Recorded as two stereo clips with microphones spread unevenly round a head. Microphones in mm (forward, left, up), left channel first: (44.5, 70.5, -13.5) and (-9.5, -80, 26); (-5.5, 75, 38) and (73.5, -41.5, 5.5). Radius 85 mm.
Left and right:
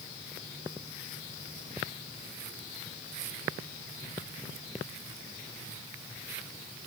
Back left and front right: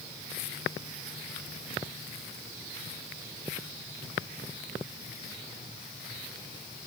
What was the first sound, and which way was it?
Only background noise.